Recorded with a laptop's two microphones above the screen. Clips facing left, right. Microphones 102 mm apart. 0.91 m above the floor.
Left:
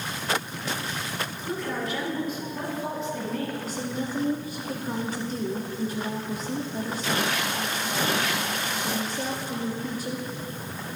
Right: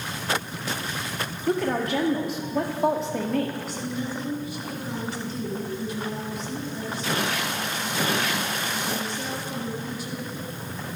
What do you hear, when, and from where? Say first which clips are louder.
1.5 s a woman speaking: right 7 dB; 70° right (ahead or behind), 1.9 m
3.6 s a woman speaking: even; 40° left (ahead or behind), 2 m